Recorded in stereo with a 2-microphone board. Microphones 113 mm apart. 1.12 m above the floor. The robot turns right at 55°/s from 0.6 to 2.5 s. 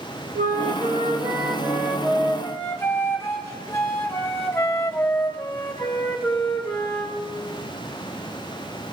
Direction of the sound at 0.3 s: 80° right.